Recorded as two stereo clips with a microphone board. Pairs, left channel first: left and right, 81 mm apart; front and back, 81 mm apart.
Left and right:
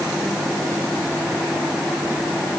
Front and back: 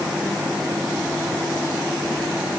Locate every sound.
Only background noise.